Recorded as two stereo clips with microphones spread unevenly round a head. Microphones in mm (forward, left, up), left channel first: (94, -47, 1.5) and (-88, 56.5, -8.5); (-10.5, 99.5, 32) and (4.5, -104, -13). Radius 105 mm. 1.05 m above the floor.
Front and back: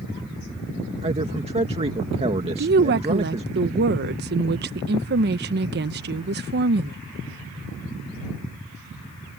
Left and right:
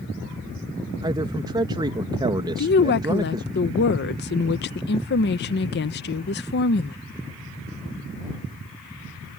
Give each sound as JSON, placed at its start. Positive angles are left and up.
{"t": 1.0, "sound": "a man speaking", "azimuth_deg": -150}
{"t": 2.6, "sound": "a woman speaking", "azimuth_deg": 130}